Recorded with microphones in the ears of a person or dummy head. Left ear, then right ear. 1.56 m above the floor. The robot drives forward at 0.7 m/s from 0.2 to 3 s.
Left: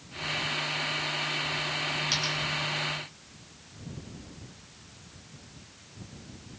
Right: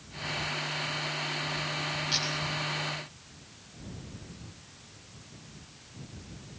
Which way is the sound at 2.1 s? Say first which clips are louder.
Right 1 dB; 40° left (ahead or behind).